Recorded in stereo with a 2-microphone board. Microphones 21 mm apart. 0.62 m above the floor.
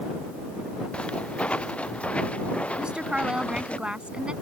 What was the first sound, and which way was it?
Footsteps, 65° left (ahead or behind).